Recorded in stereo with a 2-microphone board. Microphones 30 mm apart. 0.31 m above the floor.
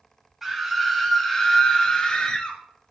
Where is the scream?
10° right (ahead or behind), 1.8 m; by 2.6 s 30° left (ahead or behind), 2 m.